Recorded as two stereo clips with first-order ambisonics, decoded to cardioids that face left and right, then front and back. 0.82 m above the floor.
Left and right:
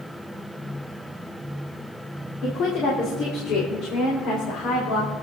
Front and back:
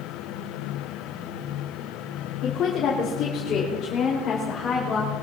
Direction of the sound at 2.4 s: 45° left.